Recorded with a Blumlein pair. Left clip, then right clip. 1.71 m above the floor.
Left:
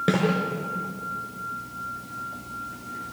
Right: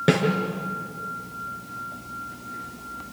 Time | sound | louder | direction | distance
0.1 | a snare drum | right 4 dB | 10° right | 6 m